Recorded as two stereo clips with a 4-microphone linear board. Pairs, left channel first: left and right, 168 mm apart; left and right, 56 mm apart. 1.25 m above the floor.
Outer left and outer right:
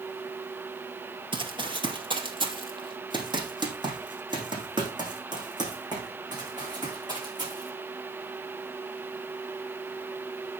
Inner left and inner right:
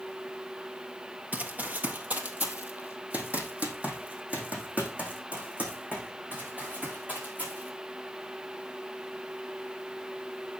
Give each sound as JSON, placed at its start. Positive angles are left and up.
{"t": 1.3, "sound": "running footsteps", "side_deg": -30, "distance_m": 1.6}